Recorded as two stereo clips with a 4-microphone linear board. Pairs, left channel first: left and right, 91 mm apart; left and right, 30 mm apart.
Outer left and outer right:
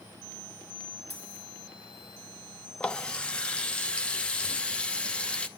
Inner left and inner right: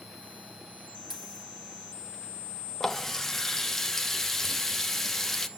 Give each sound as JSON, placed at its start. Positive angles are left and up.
{"t": 1.1, "sound": "a dropped coin", "side_deg": -15, "distance_m": 4.5}
{"t": 2.8, "sound": "a running tap", "side_deg": 10, "distance_m": 0.8}